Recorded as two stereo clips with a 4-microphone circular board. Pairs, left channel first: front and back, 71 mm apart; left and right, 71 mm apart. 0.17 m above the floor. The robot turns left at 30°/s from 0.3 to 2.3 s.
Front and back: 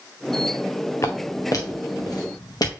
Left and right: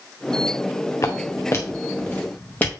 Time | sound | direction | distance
1.0 | footsteps | 50° left | 1.3 m